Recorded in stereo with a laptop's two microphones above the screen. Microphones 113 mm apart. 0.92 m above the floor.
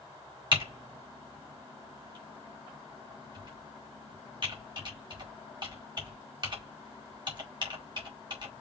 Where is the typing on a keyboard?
45° right (ahead or behind), 1.9 m.